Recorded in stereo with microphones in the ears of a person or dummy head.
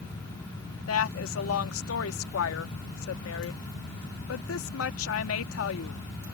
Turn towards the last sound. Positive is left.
turn(degrees=90)